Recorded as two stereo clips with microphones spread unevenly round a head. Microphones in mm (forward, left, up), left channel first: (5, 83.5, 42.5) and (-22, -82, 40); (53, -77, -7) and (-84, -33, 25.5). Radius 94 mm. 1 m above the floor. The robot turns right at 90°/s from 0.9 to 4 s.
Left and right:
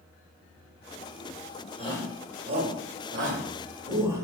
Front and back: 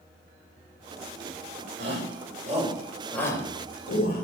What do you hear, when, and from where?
1.8 s a shout: 135° left, 4.5 m; by 4.2 s 25° right, 4.5 m